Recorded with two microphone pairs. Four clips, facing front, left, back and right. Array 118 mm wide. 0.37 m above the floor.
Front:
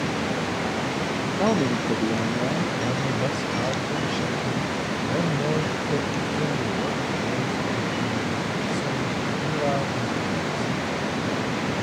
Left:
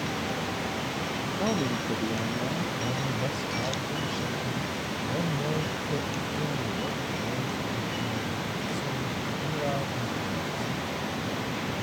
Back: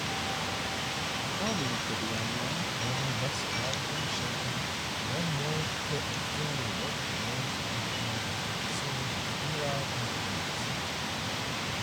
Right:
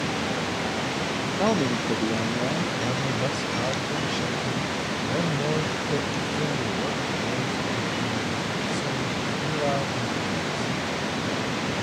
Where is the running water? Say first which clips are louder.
Right 4 dB, front 9 dB; 45° right.